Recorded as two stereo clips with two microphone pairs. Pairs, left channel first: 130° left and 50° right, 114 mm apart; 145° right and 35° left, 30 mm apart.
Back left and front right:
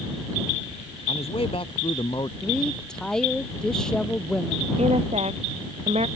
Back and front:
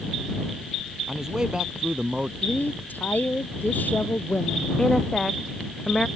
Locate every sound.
1.1 s a man speaking: 110° left; by 2.3 s 80° left
2.4 s a woman speaking: 145° right
4.8 s a woman speaking: 70° right